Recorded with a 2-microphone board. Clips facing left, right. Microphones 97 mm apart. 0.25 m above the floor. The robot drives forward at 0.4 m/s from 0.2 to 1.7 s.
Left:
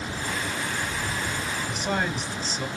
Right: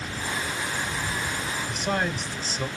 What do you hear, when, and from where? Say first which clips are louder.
1.7 s a man speaking: right 1 dB; centre (ahead or behind), 1.4 m